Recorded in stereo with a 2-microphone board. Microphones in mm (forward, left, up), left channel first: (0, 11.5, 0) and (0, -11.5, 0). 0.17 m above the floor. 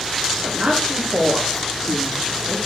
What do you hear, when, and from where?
0.4 s a woman speaking: 70° right (ahead or behind), 6.5 m; by 2.6 s 75° right (ahead or behind), 8 m